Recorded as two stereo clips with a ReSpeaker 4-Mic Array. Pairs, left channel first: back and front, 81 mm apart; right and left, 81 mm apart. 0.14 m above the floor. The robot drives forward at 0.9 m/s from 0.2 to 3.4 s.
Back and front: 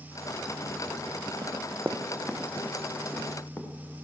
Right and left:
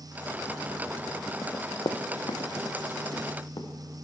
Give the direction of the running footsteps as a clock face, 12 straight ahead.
1 o'clock.